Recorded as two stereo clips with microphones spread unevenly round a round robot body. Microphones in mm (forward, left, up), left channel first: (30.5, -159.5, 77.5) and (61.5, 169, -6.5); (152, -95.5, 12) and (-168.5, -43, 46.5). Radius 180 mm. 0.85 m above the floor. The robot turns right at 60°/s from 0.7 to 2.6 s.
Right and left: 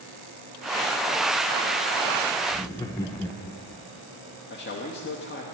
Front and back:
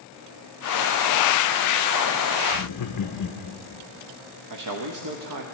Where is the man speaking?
160° right, 1.0 m.